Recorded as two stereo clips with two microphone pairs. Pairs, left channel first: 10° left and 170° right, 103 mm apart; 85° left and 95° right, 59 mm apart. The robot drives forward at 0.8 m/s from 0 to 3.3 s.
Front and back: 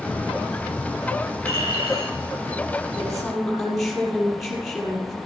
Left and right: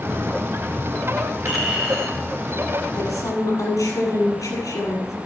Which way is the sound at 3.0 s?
95° left.